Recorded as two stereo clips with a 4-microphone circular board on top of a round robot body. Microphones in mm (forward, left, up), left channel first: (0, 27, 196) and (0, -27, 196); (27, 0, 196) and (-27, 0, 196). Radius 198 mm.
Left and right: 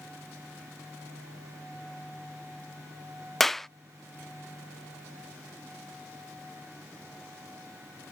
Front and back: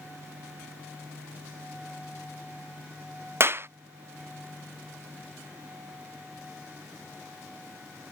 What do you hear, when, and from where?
3.4 s a clap: 175° left